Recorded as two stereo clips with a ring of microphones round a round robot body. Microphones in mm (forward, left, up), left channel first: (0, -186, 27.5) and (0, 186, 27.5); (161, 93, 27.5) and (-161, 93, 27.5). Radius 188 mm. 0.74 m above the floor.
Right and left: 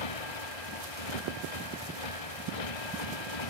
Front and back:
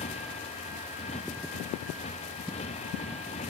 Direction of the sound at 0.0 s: 75° right.